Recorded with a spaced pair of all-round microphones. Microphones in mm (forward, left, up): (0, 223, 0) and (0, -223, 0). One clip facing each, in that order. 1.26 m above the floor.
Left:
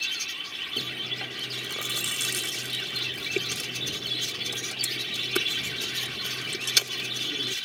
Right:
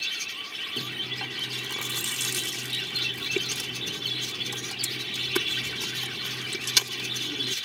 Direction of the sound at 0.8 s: 15° right (ahead or behind).